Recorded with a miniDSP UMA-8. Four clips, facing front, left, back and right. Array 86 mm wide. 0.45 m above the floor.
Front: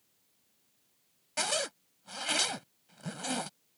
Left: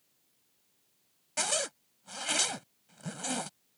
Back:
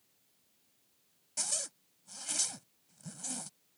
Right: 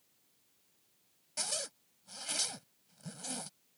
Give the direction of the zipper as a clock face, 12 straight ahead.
11 o'clock.